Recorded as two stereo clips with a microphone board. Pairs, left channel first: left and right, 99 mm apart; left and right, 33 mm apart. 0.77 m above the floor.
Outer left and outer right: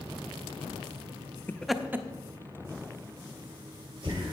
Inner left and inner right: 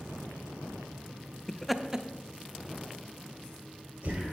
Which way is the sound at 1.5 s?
20° left (ahead or behind).